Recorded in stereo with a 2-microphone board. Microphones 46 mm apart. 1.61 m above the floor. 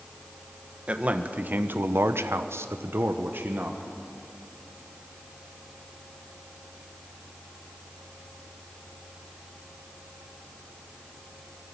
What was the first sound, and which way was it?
A man speaking, 30° right (ahead or behind).